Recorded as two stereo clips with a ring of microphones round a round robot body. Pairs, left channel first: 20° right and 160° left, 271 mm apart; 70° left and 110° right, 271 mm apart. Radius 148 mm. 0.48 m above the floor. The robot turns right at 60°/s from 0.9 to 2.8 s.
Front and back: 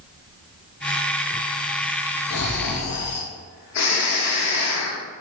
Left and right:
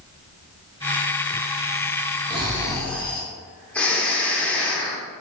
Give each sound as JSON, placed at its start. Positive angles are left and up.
{"t": 2.3, "sound": "snoring", "azimuth_deg": -50, "distance_m": 0.7}